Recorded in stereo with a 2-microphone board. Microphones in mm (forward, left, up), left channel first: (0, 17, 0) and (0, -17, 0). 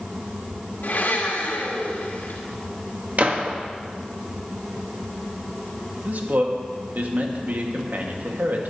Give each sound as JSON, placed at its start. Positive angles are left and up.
{"t": 0.8, "sound": "a blender", "side_deg": 80, "distance_m": 3.0}
{"t": 3.2, "sound": "a gunshot", "side_deg": -50, "distance_m": 1.3}
{"t": 6.0, "sound": "a man speaking", "side_deg": -60, "distance_m": 1.7}